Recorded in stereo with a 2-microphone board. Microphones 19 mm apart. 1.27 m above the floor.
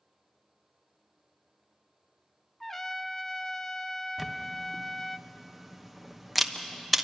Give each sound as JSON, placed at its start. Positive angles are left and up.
{"t": 2.6, "sound": "a trumpet", "side_deg": 15, "distance_m": 0.6}
{"t": 4.2, "sound": "a camera shutter", "side_deg": 0, "distance_m": 1.0}